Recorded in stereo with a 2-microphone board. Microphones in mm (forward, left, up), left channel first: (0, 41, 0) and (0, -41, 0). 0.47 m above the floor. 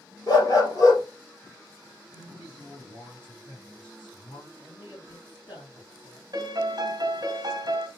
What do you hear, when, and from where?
0.3 s a dog barking: 50° left (ahead or behind), 2.5 m
2.1 s a man speaking: 75° left (ahead or behind), 3 m
4.6 s a man speaking: 70° left (ahead or behind), 4.5 m
6.3 s a piano: 55° right (ahead or behind), 1.4 m